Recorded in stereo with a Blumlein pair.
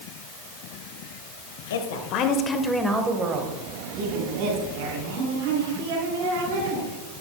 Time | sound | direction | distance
1.7 | a woman speaking | 60° left | 1.8 m